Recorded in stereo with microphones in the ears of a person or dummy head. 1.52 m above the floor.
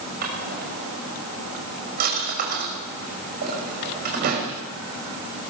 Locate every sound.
0.2 s a drawer: 45° right (ahead or behind), 5.5 m